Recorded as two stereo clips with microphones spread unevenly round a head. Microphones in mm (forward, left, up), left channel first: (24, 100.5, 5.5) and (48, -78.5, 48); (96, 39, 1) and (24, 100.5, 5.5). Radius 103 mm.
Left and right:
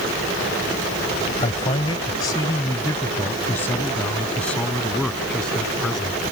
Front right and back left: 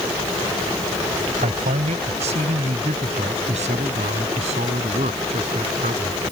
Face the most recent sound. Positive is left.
turn(degrees=-175)